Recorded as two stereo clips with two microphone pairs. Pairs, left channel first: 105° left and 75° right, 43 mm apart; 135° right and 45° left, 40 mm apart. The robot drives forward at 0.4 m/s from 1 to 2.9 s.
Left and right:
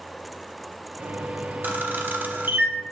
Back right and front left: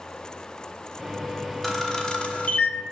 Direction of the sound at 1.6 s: 50° right.